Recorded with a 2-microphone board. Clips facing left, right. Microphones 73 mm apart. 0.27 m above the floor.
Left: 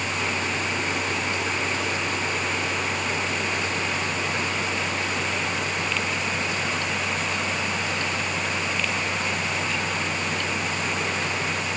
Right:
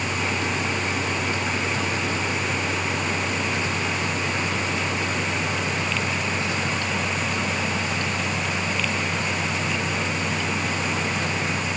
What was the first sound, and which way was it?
Only background noise.